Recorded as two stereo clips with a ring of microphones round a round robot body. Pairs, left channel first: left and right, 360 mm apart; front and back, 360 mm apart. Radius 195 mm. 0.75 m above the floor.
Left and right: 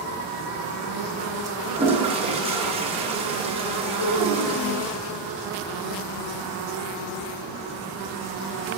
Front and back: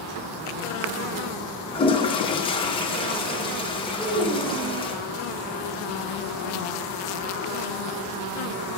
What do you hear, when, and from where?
1.8 s a toilet flushing: 50° right, 0.6 m
4.0 s a child speaking: 125° left, 2.5 m